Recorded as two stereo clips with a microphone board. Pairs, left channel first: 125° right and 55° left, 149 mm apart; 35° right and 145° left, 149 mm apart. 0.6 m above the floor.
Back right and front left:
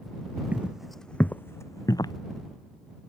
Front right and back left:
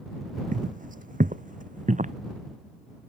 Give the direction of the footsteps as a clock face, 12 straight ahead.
8 o'clock.